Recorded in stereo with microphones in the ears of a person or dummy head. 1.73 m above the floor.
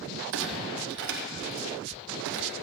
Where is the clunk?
65° right (ahead or behind), 0.9 m.